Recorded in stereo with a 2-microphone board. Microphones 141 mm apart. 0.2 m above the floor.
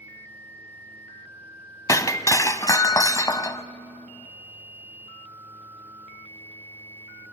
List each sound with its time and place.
1.9 s breaking glass: 25° left (ahead or behind), 0.6 m